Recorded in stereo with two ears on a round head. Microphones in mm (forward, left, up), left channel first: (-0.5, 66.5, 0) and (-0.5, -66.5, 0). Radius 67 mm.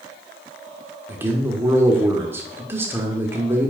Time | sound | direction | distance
1.1 | a man speaking | 15° right (ahead or behind) | 1.3 m